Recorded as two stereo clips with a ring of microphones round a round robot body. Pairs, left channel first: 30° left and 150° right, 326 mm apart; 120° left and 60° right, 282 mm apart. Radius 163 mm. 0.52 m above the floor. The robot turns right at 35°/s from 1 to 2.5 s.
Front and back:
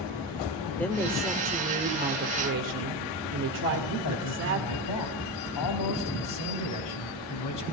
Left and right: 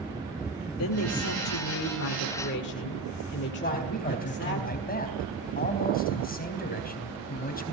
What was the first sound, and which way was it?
A woman speaking, 115° left.